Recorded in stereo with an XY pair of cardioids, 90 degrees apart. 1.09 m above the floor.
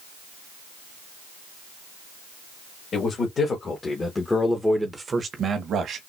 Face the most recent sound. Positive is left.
turn(degrees=-80)